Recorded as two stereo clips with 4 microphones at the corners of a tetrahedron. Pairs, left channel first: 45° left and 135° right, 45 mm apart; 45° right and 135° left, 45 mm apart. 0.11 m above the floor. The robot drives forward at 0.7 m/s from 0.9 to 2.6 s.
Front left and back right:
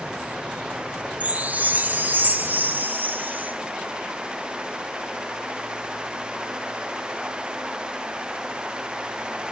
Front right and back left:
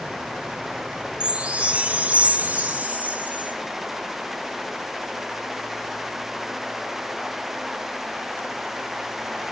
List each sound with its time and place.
1.2 s a chime: 170° right, 1.3 m; by 3.5 s 175° right, 2 m